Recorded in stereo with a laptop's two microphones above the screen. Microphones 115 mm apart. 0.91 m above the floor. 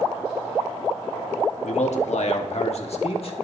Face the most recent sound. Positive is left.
turn(degrees=50)  # may be behind; listen again after turning